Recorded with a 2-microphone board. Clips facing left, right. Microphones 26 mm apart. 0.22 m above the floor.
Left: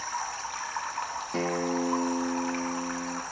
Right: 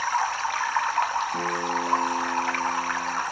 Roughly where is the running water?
Right.